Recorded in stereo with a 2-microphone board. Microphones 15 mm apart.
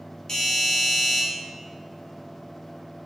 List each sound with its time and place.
0.3 s a doorbell: 35° left (ahead or behind), 1.0 m